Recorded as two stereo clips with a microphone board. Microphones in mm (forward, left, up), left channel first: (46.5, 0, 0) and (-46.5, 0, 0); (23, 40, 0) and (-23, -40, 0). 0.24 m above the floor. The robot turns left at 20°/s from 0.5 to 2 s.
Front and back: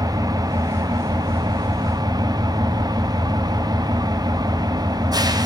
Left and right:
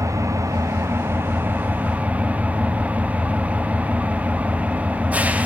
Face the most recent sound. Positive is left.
turn(degrees=170)